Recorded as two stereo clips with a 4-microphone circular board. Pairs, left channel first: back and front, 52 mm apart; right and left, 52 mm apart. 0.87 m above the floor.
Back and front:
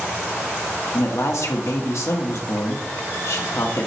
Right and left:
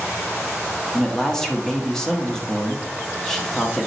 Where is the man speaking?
170° right, 1.4 m.